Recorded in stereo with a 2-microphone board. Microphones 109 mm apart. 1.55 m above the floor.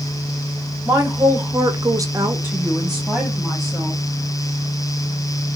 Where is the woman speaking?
20° right (ahead or behind), 1.3 m; by 4.0 s 5° left (ahead or behind), 1.9 m.